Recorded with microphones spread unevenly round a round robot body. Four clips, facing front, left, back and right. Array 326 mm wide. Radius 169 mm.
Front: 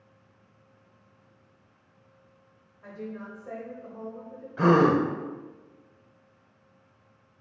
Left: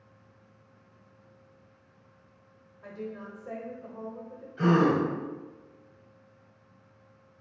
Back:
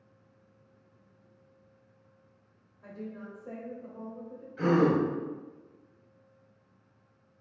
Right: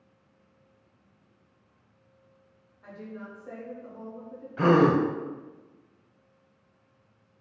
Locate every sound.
2.8 s a woman speaking: 105° left, 0.9 m
4.6 s a gasp: 35° right, 0.5 m